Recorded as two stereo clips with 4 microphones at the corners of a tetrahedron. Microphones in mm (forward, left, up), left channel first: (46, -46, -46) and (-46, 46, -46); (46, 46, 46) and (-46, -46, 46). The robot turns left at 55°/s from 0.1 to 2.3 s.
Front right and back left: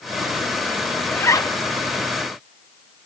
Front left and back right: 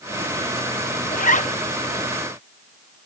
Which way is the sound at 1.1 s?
35° left.